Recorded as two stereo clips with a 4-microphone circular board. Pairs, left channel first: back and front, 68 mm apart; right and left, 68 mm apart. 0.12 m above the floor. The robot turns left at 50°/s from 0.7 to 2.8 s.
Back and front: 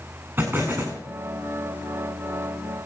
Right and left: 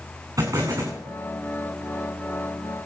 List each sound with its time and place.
0.4 s an explosion: 55° left, 5 m; by 1.0 s 40° left, 5 m